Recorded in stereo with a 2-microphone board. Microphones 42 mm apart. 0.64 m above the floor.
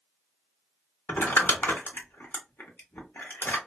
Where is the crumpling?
65° left (ahead or behind), 0.9 m.